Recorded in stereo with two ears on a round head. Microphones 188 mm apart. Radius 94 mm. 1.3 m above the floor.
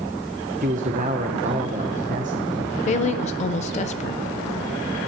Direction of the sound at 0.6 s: 40° right (ahead or behind).